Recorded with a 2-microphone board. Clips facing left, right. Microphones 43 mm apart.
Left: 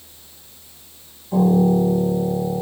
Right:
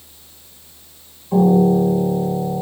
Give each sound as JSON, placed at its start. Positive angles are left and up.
{"t": 1.3, "sound": "a piano", "side_deg": -30, "distance_m": 0.7}